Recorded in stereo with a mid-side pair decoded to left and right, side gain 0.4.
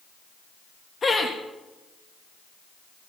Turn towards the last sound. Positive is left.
turn(degrees=40)